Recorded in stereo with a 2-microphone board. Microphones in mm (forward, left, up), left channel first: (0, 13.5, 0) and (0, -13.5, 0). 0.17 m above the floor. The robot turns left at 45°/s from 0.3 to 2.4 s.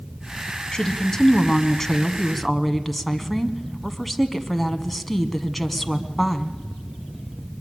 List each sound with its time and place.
0.7 s a woman speaking: 30° left (ahead or behind), 1.1 m; by 6.6 s centre (ahead or behind), 1.1 m